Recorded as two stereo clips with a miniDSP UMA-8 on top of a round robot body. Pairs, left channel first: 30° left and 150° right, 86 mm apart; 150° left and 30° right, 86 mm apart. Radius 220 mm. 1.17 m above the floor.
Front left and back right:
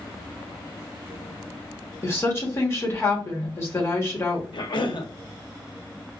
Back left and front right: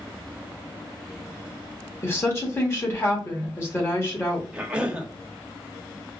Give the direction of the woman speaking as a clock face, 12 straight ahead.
9 o'clock.